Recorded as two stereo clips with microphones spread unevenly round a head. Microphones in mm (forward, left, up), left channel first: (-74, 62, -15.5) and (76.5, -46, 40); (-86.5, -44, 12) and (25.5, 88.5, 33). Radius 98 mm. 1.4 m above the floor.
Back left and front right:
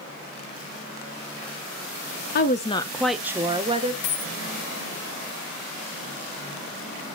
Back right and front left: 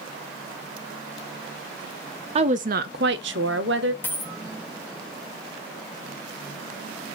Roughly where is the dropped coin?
Behind left.